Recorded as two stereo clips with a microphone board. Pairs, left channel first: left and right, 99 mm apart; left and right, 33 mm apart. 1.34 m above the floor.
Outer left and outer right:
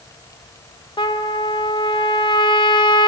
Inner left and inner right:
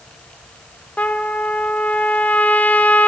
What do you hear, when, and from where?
1.0 s a trumpet: 50° left (ahead or behind), 0.8 m